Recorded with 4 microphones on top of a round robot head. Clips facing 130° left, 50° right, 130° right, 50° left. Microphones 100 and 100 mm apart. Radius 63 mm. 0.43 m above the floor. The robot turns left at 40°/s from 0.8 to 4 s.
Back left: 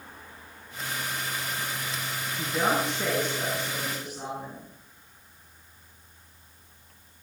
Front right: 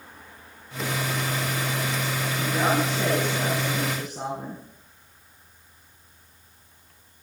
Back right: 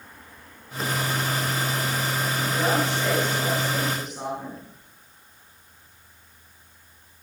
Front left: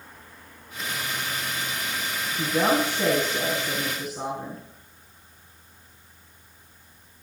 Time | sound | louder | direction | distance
2.4 | a woman speaking | front right 2 dB, front left 3 dB | 30° left | 5 m